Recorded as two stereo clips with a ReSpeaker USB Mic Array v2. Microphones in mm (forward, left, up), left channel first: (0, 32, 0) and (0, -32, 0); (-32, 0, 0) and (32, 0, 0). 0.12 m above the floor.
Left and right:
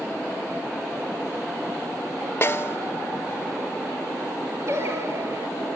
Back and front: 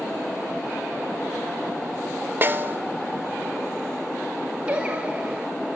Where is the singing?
70° right, 1.2 m.